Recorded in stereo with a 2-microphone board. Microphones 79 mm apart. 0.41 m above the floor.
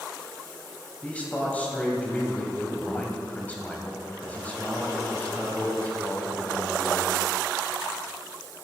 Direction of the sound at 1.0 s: 15° left (ahead or behind).